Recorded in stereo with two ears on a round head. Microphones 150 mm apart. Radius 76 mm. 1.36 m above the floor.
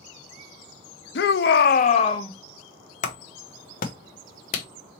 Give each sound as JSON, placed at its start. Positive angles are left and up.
{"t": 1.1, "sound": "a shout", "side_deg": 65, "distance_m": 0.7}
{"t": 3.0, "sound": "a clap", "side_deg": 50, "distance_m": 0.8}